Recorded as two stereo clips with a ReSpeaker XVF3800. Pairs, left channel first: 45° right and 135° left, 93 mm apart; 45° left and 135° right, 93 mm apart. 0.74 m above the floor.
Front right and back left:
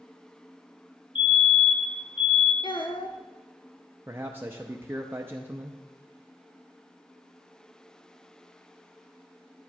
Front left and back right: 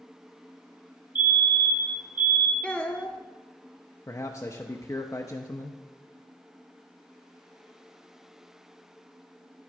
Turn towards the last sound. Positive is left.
turn(degrees=80)